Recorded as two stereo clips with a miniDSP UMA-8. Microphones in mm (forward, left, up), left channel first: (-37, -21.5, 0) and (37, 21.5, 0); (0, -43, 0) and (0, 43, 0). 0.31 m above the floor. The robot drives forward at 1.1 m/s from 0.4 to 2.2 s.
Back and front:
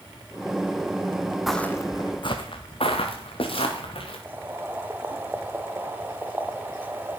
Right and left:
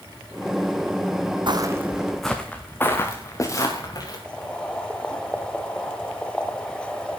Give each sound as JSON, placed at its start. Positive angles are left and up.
{"t": 1.5, "sound": "footsteps", "azimuth_deg": 120, "distance_m": 1.0}
{"t": 4.2, "sound": "boiling", "azimuth_deg": -20, "distance_m": 1.3}